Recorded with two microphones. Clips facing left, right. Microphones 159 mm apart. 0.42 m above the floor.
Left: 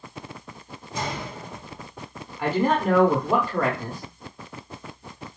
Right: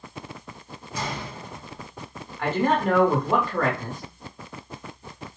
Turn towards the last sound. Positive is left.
turn(degrees=10)  # may be behind; listen again after turning